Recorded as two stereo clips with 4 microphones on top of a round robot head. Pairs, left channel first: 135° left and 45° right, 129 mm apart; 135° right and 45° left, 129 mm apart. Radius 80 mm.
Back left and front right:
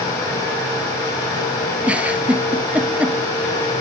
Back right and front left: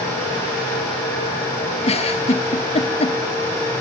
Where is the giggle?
120° right, 1.1 m.